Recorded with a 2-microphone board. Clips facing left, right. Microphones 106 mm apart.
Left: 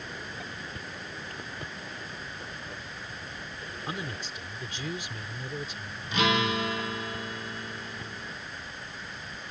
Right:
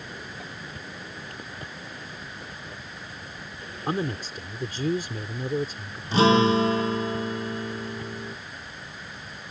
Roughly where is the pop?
No pop in this recording.